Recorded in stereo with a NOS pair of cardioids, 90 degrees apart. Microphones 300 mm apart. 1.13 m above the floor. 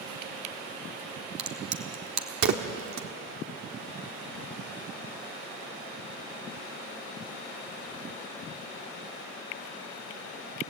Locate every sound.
1.4 s a crack: 65° right, 1.5 m